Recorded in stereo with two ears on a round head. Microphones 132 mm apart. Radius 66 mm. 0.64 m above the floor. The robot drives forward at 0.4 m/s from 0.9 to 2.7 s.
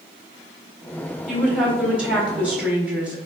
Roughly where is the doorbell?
No doorbell in this recording.